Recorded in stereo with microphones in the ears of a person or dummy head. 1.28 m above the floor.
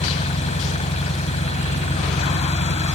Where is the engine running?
35° left (ahead or behind).